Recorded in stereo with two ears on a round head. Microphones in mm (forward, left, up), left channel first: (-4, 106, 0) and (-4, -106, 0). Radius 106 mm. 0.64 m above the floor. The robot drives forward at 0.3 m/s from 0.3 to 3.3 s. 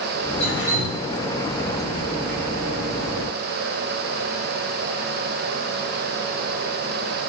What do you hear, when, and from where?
0.4 s dripping: 55° left (ahead or behind), 2 m